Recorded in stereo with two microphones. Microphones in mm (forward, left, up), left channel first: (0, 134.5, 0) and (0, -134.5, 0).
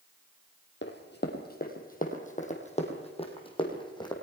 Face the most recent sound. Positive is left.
turn(degrees=15)  # may be behind; listen again after turning